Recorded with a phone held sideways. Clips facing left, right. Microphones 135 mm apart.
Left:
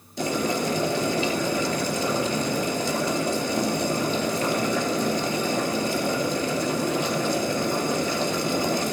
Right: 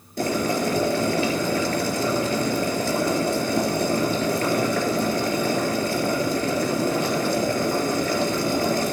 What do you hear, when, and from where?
0.2 s boiling: 55° right (ahead or behind), 3.5 m